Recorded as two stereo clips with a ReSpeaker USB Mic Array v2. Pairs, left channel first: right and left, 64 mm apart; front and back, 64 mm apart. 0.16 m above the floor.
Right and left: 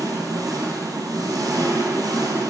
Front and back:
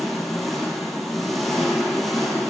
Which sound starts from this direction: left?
An engine running, at 0.0 s.